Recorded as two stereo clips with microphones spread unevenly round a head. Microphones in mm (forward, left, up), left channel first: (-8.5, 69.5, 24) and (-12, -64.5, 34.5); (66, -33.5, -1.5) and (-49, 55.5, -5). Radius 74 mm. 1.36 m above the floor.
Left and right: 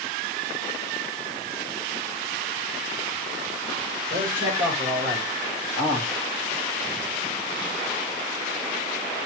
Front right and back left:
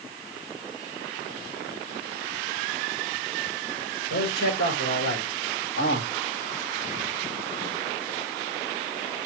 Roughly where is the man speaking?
Ahead right.